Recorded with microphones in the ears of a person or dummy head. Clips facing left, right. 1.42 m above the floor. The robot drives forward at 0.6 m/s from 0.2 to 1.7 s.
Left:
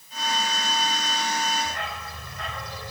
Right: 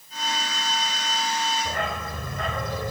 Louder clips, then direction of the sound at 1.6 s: Right 5 dB; 50° right (ahead or behind).